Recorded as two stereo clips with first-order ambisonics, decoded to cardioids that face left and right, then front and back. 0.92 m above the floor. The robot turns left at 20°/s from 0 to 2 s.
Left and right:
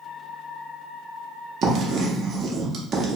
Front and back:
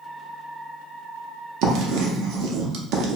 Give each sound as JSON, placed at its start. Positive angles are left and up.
{"t": 1.6, "sound": "writing", "azimuth_deg": -145, "distance_m": 0.5}